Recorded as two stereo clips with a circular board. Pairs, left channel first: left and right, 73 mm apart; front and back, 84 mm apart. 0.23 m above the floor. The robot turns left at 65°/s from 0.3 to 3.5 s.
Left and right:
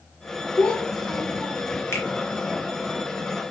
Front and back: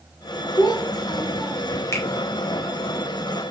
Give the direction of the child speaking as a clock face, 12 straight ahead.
11 o'clock.